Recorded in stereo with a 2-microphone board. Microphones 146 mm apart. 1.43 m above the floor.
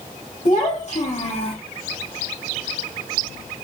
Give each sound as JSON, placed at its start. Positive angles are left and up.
{"t": 0.5, "sound": "a child speaking", "side_deg": 55, "distance_m": 2.5}